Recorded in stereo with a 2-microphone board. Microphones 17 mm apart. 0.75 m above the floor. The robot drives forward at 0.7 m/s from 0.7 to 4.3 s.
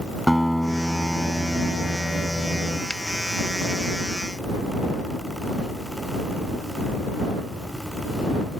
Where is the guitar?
5° left (ahead or behind); by 2.8 s 10° left (ahead or behind).